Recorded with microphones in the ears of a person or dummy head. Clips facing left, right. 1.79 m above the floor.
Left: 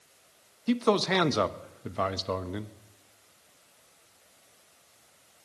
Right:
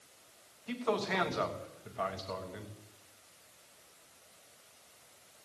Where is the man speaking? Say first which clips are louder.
Left 9 dB; 60° left (ahead or behind), 0.6 m.